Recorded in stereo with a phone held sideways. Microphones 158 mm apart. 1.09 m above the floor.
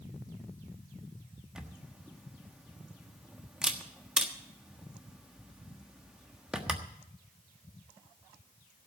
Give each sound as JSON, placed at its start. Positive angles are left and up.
{"t": 1.6, "sound": "a camera shutter", "side_deg": -5, "distance_m": 1.3}